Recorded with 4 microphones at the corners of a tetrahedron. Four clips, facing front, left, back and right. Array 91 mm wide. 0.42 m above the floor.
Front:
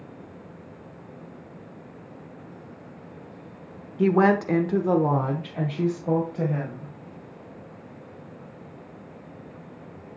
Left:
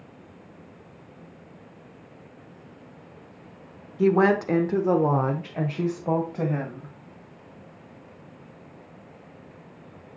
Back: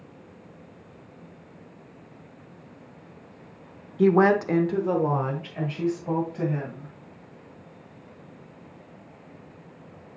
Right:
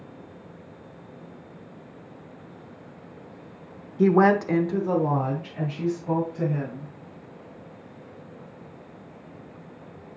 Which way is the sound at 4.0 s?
120° right.